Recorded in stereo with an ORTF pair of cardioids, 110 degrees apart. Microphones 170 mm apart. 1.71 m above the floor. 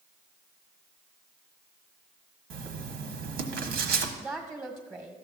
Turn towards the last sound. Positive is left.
turn(degrees=-15)